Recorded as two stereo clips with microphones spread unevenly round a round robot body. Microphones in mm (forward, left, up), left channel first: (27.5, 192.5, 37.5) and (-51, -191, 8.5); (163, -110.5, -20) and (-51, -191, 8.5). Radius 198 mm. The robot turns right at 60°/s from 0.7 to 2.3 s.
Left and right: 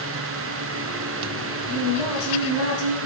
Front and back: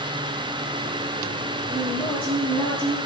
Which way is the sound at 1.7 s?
95° left.